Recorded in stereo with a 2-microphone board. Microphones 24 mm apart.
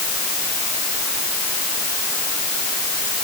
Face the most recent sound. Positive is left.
No sound to turn to.